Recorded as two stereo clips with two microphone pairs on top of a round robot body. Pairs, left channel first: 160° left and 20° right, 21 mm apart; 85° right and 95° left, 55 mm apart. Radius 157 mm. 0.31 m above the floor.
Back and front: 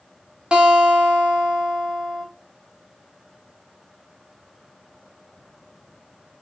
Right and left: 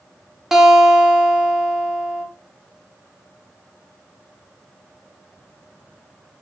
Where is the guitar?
5° right, 1.5 m.